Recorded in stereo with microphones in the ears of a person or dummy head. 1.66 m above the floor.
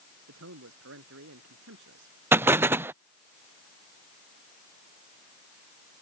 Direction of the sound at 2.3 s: 10° right (ahead or behind).